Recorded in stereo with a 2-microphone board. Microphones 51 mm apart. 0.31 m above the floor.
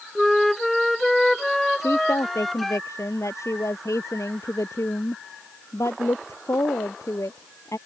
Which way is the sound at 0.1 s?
5° left (ahead or behind).